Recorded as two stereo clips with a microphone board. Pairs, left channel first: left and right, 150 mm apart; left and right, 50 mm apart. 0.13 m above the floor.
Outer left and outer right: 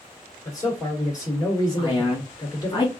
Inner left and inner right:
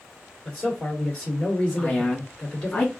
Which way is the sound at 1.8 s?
30° left (ahead or behind).